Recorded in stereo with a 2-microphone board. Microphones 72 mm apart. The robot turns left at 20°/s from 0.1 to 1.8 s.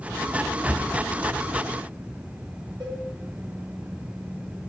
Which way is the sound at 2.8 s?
80° right.